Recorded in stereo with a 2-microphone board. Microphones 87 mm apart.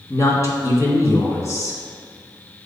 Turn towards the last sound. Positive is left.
turn(degrees=35)  # may be behind; listen again after turning